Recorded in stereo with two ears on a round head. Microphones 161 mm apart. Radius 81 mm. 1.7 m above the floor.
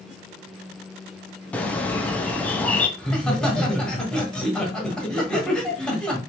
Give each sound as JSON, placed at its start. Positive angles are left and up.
{"t": 1.5, "sound": "a bird", "side_deg": 5, "distance_m": 0.6}
{"t": 3.0, "sound": "laughter", "side_deg": 5, "distance_m": 1.2}